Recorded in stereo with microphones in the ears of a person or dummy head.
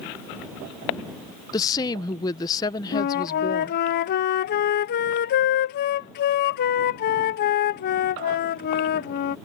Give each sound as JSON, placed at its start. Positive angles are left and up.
{"t": 1.5, "sound": "a woman speaking", "side_deg": 20}
{"t": 2.9, "sound": "a flute", "side_deg": 50}